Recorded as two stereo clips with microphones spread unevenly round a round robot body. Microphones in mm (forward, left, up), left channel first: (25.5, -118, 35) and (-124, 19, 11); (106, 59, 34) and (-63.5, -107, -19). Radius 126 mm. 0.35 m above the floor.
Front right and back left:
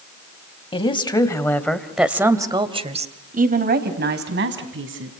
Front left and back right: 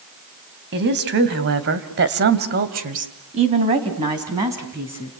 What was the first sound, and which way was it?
A woman speaking, 105° right.